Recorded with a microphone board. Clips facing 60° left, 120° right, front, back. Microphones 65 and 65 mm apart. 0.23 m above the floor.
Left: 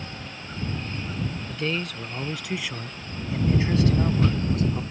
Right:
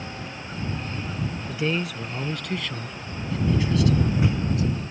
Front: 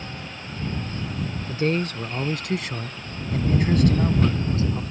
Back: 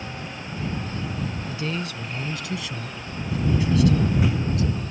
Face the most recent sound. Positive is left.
turn(degrees=50)